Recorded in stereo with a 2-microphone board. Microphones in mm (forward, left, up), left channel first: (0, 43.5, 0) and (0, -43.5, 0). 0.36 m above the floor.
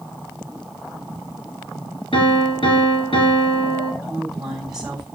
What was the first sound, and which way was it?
A piano, 75° left (ahead or behind).